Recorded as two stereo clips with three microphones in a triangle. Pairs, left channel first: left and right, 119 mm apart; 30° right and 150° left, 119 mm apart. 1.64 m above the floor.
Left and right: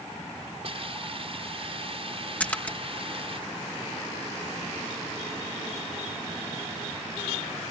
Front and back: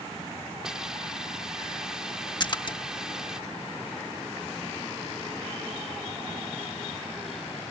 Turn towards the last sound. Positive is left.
turn(degrees=15)